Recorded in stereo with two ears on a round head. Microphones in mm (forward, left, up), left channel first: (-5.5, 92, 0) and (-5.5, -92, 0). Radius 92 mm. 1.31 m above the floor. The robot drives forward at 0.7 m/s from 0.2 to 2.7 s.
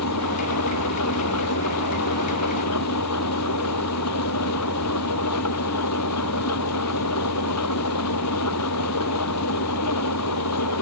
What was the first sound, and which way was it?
An engine running, 85° left.